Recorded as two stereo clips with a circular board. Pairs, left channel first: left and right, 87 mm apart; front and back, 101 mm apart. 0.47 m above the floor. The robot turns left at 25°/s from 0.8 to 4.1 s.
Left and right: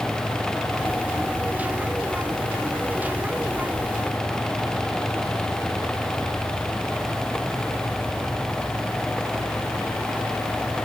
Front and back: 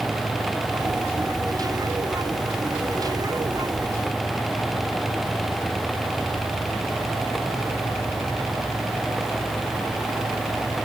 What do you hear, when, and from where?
Only background noise.